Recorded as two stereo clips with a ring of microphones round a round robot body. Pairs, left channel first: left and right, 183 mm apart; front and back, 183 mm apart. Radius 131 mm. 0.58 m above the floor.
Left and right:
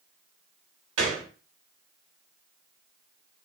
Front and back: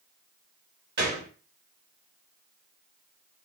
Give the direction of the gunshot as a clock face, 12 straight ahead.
4 o'clock.